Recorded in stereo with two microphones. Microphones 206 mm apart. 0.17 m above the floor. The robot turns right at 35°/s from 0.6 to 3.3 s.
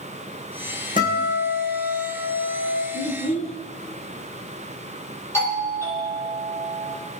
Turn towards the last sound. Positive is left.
turn(degrees=10)  # may be behind; listen again after turning